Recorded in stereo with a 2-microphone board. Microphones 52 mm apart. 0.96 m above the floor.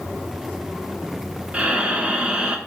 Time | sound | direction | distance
1.5 | breathing | 25° right (ahead or behind) | 1.0 m